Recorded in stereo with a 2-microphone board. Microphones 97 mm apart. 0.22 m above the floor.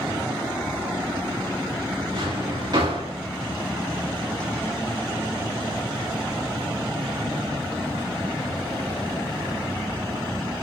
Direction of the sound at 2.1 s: 50° right (ahead or behind).